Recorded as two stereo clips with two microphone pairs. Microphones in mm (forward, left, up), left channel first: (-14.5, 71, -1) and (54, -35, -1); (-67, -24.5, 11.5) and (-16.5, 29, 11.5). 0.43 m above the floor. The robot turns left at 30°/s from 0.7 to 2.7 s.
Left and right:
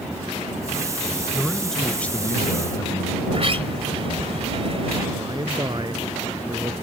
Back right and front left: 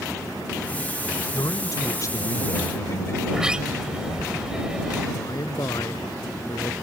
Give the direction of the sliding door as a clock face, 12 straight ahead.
1 o'clock.